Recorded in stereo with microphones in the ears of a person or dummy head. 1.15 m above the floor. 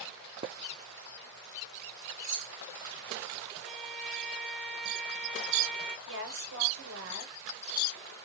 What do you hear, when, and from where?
2.2 s keys jangling: 65° right (ahead or behind), 1.2 m
3.6 s a violin: centre (ahead or behind), 0.6 m
6.1 s a woman speaking: 65° right (ahead or behind), 1.1 m